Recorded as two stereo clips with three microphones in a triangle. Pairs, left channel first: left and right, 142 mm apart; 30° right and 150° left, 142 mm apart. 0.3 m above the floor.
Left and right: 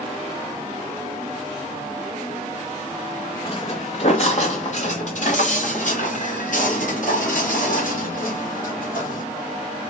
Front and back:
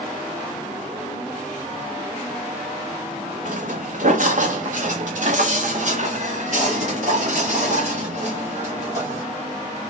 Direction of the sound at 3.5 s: 135° left.